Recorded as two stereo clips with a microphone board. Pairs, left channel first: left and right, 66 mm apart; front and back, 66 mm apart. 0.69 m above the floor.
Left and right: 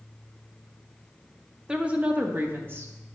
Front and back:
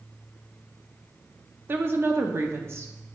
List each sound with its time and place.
1.7 s a woman speaking: 155° right, 0.7 m; by 2.9 s 135° right, 1.1 m